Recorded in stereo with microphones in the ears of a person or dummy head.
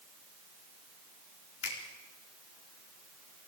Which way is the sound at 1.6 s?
80° left.